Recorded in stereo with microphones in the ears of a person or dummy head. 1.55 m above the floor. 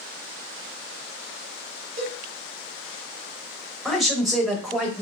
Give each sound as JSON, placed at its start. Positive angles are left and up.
{"t": 2.0, "sound": "a cowbell", "side_deg": -50, "distance_m": 0.7}
{"t": 3.9, "sound": "a man speaking", "side_deg": 0, "distance_m": 0.8}